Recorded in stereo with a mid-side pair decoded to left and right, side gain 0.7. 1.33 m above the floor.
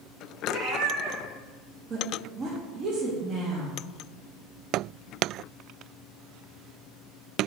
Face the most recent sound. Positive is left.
turn(degrees=-35)